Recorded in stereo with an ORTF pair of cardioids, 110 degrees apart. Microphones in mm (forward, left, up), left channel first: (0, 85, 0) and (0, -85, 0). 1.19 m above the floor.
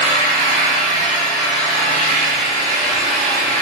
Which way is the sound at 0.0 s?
45° right.